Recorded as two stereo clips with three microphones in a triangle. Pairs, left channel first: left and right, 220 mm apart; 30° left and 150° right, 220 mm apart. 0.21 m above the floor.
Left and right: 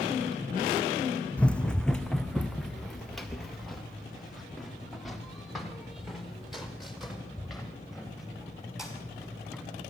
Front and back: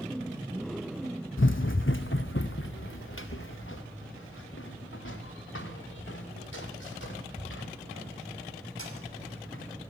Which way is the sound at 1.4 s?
5° left.